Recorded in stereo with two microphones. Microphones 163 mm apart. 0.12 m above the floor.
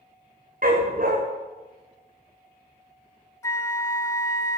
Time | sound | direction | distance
0.6 | a dog barking | 60° right (ahead or behind) | 4 m
3.4 | a flute | 20° left (ahead or behind) | 0.5 m